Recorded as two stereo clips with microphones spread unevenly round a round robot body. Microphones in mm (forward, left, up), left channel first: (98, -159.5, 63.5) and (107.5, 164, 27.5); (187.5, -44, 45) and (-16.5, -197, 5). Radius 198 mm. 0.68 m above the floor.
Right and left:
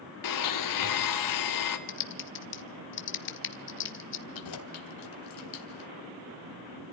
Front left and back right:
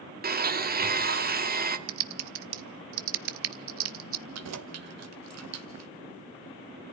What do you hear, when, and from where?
0.2 s a blender: 105° right, 1.7 m
1.9 s typing on a keyboard: 150° right, 0.8 m
4.3 s keys jangling: 130° right, 1.6 m